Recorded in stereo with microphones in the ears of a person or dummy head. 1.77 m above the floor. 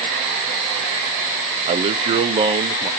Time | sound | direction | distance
1.7 | a man speaking | 35° right (ahead or behind) | 0.7 m